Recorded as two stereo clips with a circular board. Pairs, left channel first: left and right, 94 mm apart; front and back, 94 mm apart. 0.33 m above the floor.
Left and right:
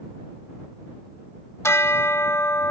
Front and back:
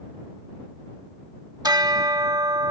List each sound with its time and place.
1.6 s a bell: 145° left